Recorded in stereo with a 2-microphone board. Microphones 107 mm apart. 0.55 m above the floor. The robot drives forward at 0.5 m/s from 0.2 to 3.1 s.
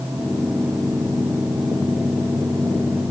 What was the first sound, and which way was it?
Only background noise.